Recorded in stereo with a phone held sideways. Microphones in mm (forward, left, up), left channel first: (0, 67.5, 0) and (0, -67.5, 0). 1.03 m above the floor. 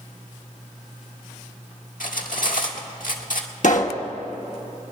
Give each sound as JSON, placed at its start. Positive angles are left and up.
{"t": 2.0, "sound": "cutlery clinking", "side_deg": 80, "distance_m": 1.4}
{"t": 3.6, "sound": "a pop", "side_deg": 65, "distance_m": 1.0}